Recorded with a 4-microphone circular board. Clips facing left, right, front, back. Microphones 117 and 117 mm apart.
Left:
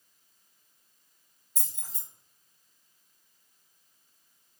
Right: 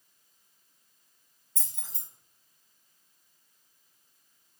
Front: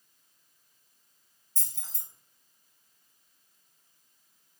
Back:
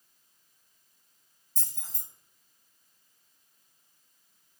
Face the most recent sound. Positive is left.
turn(degrees=165)